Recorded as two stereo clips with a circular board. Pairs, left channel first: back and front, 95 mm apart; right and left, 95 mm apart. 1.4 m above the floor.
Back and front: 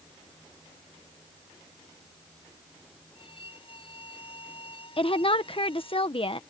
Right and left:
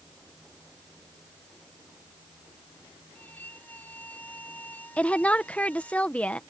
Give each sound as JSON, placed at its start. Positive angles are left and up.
{"t": 3.1, "sound": "a violin", "azimuth_deg": -160}
{"t": 5.0, "sound": "a woman speaking", "azimuth_deg": -165}